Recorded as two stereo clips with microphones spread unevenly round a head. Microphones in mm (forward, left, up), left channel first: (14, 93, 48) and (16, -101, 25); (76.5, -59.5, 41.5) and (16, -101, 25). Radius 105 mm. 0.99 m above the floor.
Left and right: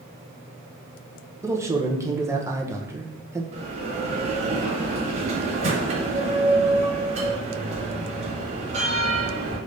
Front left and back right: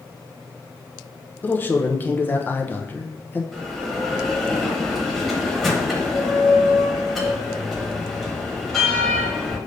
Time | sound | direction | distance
1.4 | a man speaking | 30° right | 0.8 m
3.5 | a bell | 40° right | 1.0 m